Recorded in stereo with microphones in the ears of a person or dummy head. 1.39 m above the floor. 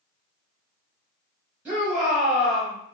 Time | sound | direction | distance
1.6 | a shout | 10° right (ahead or behind) | 1.8 m